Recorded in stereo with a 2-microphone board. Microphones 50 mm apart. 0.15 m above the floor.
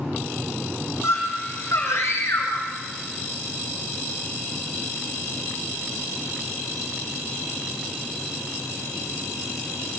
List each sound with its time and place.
1.0 s a scream: 65° left (ahead or behind), 6.5 m